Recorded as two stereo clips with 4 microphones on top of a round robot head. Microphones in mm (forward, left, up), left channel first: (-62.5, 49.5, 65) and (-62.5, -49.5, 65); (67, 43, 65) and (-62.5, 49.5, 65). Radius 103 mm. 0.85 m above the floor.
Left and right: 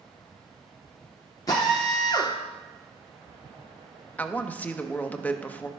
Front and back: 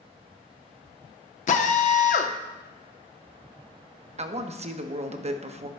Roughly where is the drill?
Ahead left.